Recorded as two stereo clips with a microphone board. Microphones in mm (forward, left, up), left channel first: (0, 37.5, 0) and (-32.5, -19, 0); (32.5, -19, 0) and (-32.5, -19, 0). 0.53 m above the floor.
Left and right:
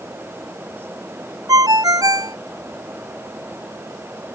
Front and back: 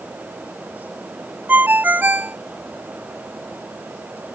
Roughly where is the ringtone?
Behind right.